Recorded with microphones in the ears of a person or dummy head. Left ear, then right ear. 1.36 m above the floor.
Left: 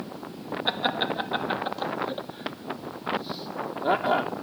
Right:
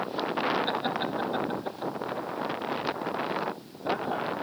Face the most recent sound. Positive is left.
turn(degrees=55)  # may be behind; listen again after turning